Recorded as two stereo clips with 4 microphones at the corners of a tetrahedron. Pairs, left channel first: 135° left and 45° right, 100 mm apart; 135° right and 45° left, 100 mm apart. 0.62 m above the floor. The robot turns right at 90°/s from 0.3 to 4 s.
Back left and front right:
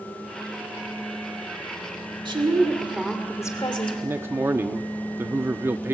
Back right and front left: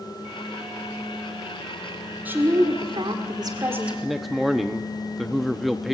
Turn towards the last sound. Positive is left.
turn(degrees=-45)